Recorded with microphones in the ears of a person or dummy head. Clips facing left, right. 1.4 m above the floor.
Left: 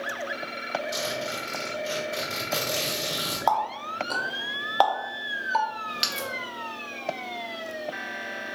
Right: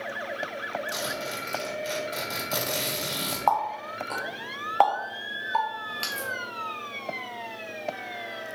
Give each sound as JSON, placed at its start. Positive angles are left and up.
{"t": 0.9, "sound": "a zipper", "side_deg": -45, "distance_m": 1.8}
{"t": 3.5, "sound": "a running tap", "side_deg": 20, "distance_m": 0.7}